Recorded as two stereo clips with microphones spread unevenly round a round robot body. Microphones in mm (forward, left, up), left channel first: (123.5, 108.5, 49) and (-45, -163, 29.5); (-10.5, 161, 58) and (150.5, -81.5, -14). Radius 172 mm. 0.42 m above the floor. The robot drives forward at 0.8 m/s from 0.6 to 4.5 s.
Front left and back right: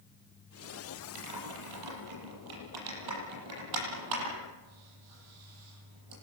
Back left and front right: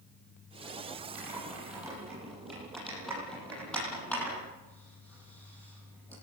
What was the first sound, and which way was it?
Typing on a keyboard, 140° right.